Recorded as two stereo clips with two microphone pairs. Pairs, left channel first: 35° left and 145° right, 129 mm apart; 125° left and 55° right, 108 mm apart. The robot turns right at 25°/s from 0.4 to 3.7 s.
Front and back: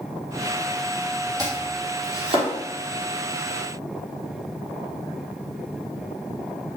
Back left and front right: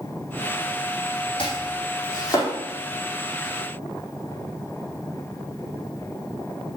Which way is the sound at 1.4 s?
155° left.